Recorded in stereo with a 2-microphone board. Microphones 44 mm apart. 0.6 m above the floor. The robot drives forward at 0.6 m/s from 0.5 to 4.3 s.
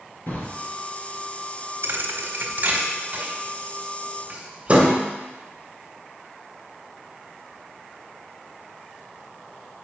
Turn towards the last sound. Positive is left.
turn(degrees=-25)  # may be behind; listen again after turning